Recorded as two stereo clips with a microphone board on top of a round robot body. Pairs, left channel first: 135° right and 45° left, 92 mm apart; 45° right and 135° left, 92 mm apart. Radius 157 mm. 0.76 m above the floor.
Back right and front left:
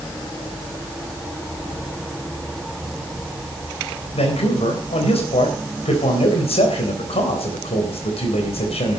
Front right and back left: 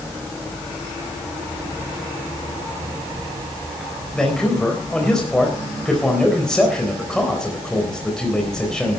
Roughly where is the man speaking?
Behind right.